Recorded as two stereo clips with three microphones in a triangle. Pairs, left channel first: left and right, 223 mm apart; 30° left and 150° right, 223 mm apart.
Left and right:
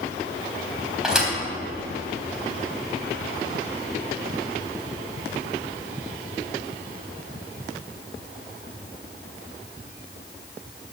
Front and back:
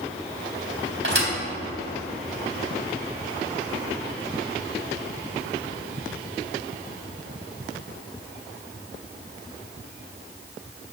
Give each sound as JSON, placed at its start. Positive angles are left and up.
{"t": 1.0, "sound": "a thud", "azimuth_deg": 180, "distance_m": 3.5}